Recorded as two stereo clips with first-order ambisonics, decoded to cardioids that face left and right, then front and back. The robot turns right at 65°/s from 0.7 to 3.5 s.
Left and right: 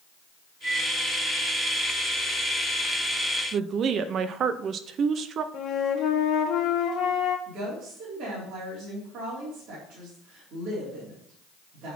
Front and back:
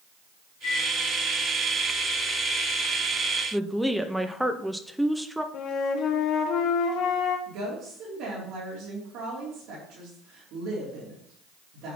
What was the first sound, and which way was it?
A microwave, 10° left.